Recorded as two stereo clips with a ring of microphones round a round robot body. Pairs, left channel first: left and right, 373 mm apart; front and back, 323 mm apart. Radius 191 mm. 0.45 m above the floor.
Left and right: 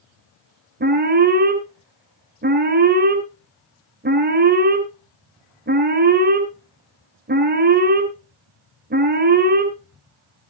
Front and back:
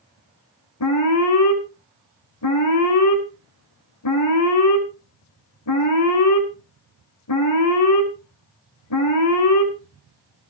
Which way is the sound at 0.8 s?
30° right.